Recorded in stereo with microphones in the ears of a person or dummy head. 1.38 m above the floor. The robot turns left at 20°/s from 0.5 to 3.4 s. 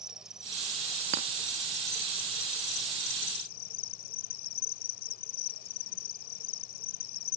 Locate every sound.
0.0 s an insect: 175° right; by 7.4 s 125° left
1.1 s a clink: 40° right (ahead or behind)